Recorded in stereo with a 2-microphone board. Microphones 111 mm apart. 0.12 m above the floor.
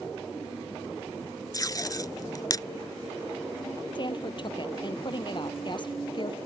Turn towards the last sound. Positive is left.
turn(degrees=45)  # may be behind; listen again after turning